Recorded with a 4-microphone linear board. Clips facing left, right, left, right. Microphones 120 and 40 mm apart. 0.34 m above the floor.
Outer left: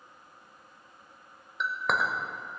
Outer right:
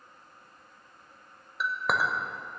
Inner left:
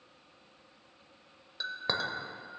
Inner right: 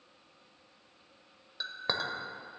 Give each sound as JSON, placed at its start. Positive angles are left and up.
{"t": 1.6, "sound": "a clink", "side_deg": -5, "distance_m": 0.7}